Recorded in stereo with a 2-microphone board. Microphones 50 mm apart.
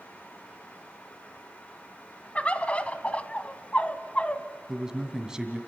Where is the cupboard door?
No cupboard door in this recording.